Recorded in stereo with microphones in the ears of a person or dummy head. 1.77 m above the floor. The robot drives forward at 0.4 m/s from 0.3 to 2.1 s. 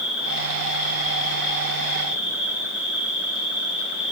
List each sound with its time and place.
0.0 s an insect: 70° left (ahead or behind), 4.5 m; by 4.1 s 75° left (ahead or behind), 4.5 m